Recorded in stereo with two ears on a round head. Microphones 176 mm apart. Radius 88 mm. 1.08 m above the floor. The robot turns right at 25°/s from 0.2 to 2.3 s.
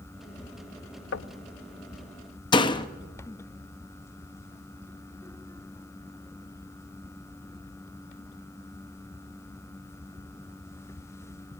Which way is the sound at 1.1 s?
65° left (ahead or behind).